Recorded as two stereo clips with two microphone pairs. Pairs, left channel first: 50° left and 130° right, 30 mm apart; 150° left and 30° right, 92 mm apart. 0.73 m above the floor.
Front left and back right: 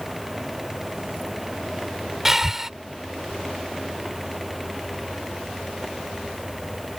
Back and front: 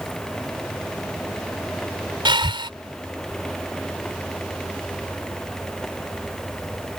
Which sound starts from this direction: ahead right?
Breathing, at 2.2 s.